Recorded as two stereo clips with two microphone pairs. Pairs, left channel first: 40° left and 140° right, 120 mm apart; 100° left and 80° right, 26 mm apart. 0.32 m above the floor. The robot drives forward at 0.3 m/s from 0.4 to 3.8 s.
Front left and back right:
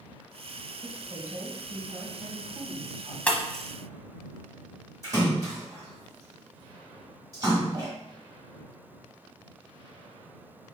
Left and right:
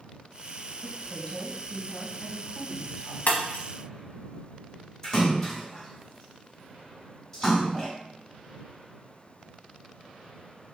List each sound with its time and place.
0.8 s a woman speaking: straight behind, 1.6 m
3.3 s breaking glass: 120° left, 0.8 m; by 3.6 s 125° left, 0.8 m
5.0 s a splash: 165° left, 2 m